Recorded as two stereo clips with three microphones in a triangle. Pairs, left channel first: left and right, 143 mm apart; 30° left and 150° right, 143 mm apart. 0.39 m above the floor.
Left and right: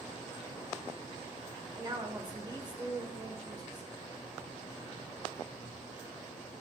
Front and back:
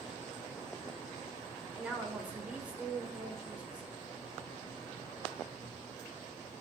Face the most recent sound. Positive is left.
turn(degrees=-80)